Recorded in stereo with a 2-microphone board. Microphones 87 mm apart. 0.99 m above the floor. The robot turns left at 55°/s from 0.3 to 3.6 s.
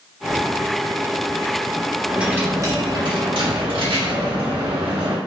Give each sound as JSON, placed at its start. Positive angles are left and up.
{"t": 2.1, "sound": "a dropped coin", "azimuth_deg": -5, "distance_m": 1.3}